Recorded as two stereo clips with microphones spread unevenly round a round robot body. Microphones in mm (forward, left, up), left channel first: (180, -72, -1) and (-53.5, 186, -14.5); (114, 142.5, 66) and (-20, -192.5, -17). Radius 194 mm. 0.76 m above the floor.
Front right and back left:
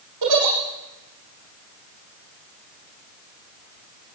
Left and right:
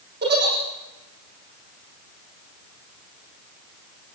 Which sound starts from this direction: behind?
A giggle, at 0.2 s.